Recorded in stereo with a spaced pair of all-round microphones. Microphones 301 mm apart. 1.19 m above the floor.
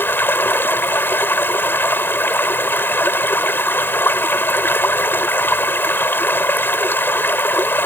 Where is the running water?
5° left (ahead or behind).